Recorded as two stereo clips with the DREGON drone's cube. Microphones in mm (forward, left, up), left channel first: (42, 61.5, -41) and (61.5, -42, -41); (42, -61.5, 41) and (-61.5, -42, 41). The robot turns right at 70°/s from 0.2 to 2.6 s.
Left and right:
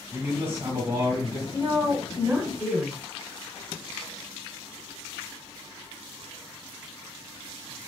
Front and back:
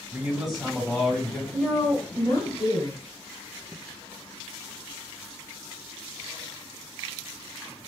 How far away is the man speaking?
About 1.5 m.